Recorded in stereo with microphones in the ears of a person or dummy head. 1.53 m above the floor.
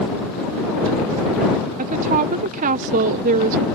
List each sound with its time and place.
1.8 s a woman speaking: 45° right (ahead or behind)